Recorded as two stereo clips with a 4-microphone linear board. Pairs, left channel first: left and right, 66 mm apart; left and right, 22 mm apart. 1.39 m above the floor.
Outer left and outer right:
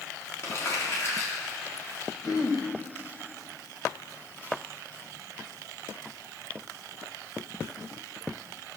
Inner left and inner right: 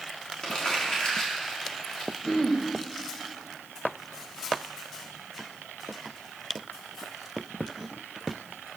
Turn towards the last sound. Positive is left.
turn(degrees=50)  # may be behind; listen again after turning